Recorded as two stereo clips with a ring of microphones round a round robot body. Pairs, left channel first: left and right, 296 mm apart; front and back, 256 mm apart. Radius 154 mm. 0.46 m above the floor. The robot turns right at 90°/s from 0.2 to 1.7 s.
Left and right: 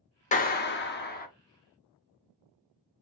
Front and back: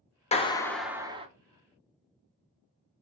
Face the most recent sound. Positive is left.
turn(degrees=170)